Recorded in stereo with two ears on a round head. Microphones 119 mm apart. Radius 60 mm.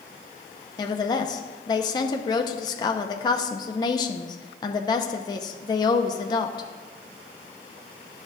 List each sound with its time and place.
0.8 s a woman speaking: 30° left (ahead or behind), 0.6 m